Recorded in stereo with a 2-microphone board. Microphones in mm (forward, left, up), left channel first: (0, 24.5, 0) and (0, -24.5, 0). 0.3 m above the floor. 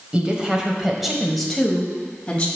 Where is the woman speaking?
25° right (ahead or behind), 1.6 m; by 2.5 s 25° left (ahead or behind), 1.9 m.